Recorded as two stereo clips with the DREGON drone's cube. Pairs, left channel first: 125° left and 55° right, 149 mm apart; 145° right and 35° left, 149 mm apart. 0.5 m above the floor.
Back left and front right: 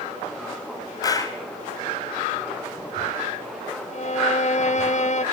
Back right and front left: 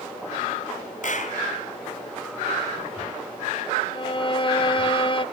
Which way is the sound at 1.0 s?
170° right.